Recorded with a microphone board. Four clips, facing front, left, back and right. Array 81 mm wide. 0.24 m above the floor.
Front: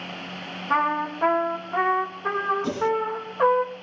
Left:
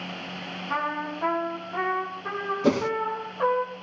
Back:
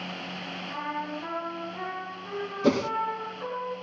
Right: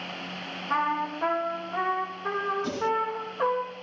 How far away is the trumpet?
About 4.5 m.